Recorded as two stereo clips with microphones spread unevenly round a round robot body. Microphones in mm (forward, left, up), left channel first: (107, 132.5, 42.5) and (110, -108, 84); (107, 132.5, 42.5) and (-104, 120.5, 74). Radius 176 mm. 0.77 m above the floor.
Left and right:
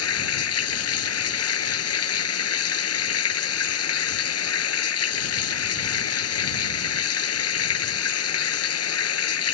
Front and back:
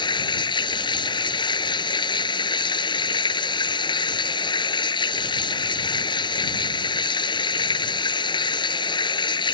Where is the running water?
70° left.